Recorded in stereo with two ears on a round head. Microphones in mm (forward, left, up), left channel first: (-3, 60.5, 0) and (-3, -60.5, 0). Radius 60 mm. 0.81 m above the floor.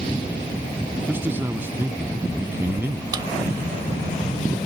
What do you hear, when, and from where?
1.1 s a man speaking: 15° right (ahead or behind)
3.1 s a drawer: 30° right (ahead or behind)